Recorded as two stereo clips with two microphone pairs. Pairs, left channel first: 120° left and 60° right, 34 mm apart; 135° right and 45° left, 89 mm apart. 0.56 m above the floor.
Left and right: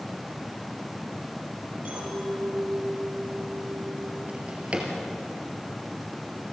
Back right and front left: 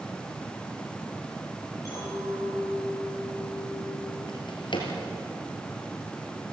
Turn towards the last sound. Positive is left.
turn(degrees=-110)